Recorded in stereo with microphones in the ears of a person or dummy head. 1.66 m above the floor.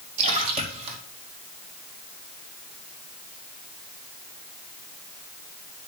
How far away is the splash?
About 2 m.